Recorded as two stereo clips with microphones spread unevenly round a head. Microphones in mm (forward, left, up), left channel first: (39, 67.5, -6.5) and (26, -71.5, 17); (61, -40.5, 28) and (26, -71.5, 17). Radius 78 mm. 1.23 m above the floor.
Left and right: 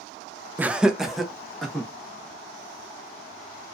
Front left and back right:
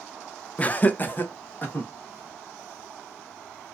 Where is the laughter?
20° right, 0.5 m; by 1.9 s 5° right, 1.8 m.